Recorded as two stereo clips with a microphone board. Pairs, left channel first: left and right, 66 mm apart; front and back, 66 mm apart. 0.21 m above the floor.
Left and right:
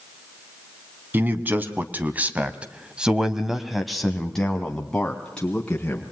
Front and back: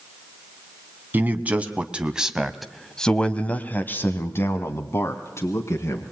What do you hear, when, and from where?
1.1 s a man speaking: 135° right, 2 m; by 6.1 s 20° left, 3 m